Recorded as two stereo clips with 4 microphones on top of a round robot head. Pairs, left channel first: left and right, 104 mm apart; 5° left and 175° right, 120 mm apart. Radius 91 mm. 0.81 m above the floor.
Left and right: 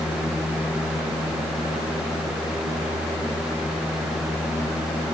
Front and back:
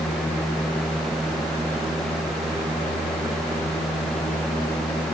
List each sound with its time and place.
Only background noise.